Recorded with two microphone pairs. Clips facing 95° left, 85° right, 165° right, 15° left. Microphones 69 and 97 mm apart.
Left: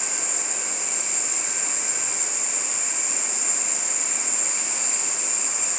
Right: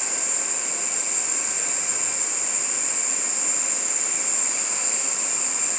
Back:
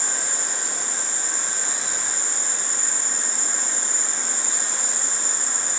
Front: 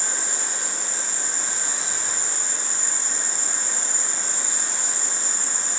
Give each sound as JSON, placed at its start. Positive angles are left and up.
{"t": 0.0, "sound": "an insect", "azimuth_deg": 165, "distance_m": 0.8}